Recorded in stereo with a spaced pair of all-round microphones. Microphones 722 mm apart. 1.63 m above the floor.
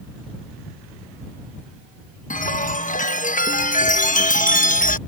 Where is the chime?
10° left (ahead or behind).